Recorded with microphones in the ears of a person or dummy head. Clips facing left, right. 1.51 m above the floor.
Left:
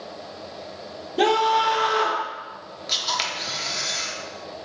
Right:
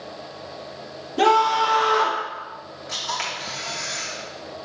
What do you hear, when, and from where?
1.2 s a scream: centre (ahead or behind), 2 m
2.9 s a camera shutter: 45° left (ahead or behind), 1.4 m